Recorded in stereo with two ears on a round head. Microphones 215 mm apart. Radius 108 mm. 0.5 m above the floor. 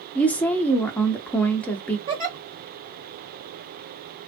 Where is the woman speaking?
5° left (ahead or behind), 0.6 m.